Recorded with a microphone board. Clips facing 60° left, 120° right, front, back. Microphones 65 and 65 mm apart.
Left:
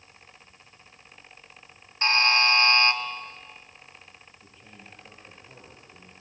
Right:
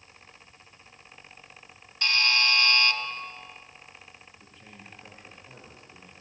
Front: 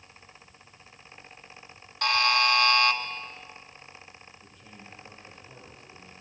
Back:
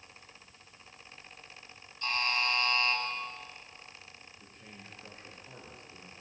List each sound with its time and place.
2.0 s a buzzer: straight ahead, 2 m
4.4 s a man speaking: 145° right, 9 m